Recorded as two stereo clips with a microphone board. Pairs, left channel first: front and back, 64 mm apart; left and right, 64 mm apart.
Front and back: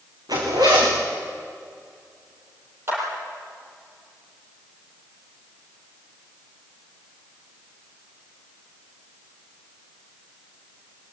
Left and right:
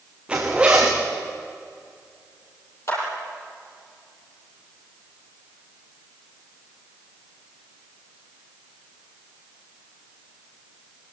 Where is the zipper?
165° right, 6 m.